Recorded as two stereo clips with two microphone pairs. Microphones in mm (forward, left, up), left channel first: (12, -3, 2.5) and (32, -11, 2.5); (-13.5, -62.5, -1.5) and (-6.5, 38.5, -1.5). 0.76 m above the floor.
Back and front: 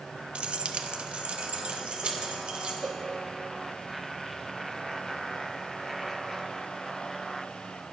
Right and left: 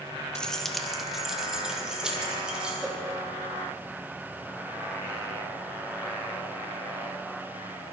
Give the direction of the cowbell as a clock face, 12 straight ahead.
12 o'clock.